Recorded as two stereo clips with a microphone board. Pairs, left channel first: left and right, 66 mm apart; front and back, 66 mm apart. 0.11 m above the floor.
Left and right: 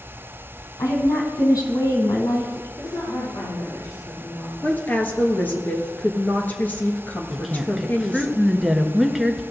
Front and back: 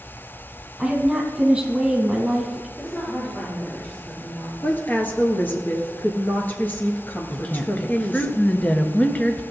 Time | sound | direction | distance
0.8 | a woman speaking | 100° left | 3 m
2.8 | a woman speaking | 70° left | 4.5 m
4.6 | a woman speaking | 40° left | 2.0 m
7.3 | a woman speaking | 10° right | 1.2 m